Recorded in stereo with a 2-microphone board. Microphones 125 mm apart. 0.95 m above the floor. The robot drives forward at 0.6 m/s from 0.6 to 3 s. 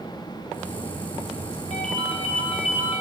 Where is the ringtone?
55° left (ahead or behind), 1.9 m; by 3.0 s 75° left (ahead or behind), 1.7 m.